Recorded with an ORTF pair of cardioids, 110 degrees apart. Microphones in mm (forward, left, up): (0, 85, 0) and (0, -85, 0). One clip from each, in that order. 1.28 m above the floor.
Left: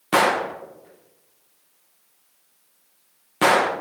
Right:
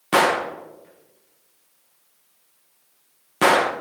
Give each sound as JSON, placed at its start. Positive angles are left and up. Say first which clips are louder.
{"t": 0.1, "sound": "a gunshot", "louder": "right 1 dB", "azimuth_deg": -5, "distance_m": 1.1}